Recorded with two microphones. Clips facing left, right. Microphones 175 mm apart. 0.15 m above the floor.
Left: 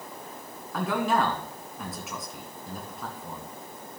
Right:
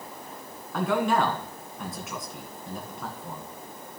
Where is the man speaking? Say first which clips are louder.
Right 2 dB; centre (ahead or behind), 1.7 m.